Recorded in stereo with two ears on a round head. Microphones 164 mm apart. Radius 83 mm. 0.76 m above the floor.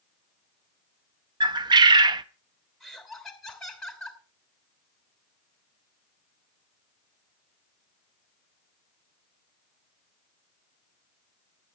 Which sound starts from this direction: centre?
Laughter, at 2.8 s.